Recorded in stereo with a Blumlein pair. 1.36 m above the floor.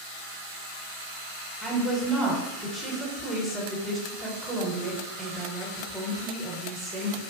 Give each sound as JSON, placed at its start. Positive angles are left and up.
{"t": 1.6, "sound": "a woman speaking", "azimuth_deg": 0, "distance_m": 0.6}